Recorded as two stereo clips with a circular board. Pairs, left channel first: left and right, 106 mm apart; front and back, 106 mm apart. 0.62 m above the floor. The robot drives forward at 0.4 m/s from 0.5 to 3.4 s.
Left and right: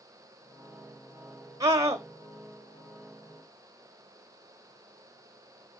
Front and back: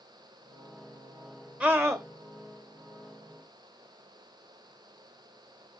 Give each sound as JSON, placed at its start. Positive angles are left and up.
{"t": 1.6, "sound": "a scream", "azimuth_deg": -115, "distance_m": 0.8}